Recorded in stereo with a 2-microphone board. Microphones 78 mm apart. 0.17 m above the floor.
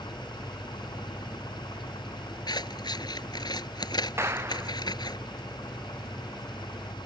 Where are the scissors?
70° left (ahead or behind).